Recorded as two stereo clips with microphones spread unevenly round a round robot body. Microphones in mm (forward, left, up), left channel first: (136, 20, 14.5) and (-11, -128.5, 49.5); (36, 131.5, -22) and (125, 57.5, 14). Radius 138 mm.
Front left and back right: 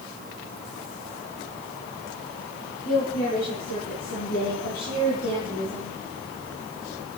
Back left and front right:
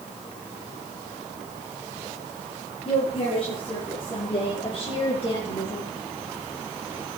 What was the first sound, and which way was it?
A woman speaking, 105° left.